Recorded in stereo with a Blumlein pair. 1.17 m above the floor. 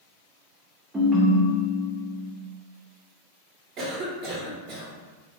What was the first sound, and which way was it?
A ringtone, 10° right.